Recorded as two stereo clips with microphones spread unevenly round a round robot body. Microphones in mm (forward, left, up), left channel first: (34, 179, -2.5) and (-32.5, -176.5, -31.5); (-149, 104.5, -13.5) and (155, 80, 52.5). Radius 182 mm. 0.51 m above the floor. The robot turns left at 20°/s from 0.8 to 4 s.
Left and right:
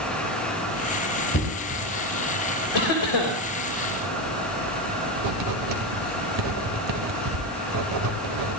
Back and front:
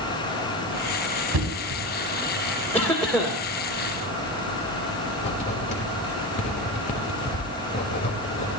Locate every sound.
1.3 s knocking: 20° left, 3.5 m; by 1.8 s 10° left, 3.5 m
2.7 s a cough: 100° left, 2.5 m; by 3.4 s 85° left, 2.5 m
5.2 s writing: 120° right, 1.9 m